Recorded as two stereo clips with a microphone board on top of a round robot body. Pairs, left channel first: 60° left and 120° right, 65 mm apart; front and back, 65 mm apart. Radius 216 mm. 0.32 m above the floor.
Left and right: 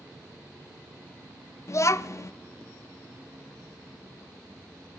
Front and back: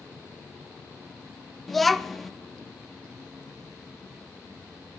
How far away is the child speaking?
About 0.5 m.